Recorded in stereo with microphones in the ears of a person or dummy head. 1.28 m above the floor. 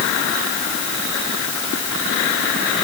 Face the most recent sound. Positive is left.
No sound to turn to.